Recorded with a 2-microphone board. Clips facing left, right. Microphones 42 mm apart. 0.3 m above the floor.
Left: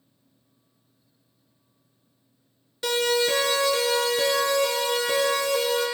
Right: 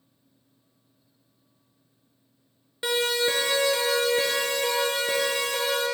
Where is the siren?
20° right (ahead or behind), 4.5 m; by 5.8 s 45° right (ahead or behind), 8 m.